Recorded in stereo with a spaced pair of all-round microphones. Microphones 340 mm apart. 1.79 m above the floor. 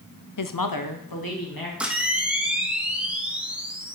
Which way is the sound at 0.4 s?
60° left (ahead or behind).